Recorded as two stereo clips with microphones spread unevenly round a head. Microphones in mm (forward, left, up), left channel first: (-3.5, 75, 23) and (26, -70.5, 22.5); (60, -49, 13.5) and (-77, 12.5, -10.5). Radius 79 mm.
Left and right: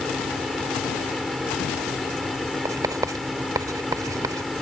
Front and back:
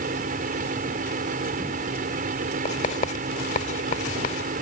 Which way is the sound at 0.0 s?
170° right.